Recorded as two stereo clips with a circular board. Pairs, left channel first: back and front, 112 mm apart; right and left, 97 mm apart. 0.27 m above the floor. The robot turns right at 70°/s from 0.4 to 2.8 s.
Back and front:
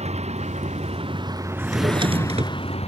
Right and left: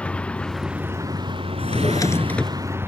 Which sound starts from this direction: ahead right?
A drawer, at 1.6 s.